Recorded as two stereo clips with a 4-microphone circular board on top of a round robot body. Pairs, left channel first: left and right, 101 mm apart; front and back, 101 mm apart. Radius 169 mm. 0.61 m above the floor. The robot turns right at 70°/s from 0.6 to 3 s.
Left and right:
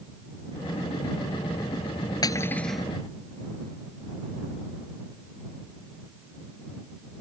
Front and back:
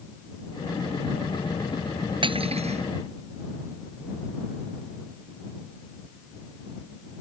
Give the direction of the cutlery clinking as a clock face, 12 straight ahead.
7 o'clock.